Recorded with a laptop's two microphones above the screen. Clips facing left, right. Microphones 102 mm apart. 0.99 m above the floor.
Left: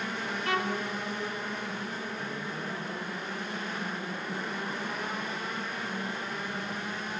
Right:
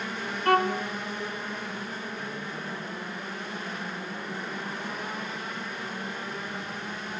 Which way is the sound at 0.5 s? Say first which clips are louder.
Right 8 dB; 55° right (ahead or behind).